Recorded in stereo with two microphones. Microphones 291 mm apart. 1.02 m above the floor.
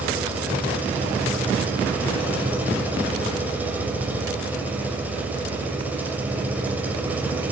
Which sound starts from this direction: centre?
An engine running, at 0.0 s.